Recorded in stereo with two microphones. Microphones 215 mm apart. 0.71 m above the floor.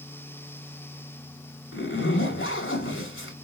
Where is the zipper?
65° left (ahead or behind), 1.7 m.